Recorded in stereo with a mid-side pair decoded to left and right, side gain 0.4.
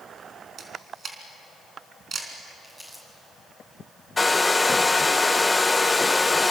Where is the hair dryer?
20° left, 0.9 m.